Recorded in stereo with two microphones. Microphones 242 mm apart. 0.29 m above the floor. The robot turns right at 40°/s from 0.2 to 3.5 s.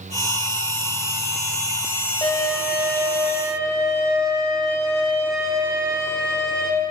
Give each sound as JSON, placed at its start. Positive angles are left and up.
{"t": 2.2, "sound": "a violin", "azimuth_deg": 150, "distance_m": 1.0}